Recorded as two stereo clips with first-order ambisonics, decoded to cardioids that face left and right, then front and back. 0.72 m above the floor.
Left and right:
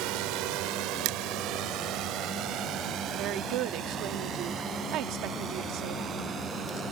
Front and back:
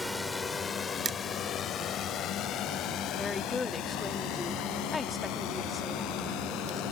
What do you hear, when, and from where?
0.0 s a drone: 85° right; by 6.9 s 30° right
1.1 s crushing: 110° right
3.2 s a woman speaking: 70° right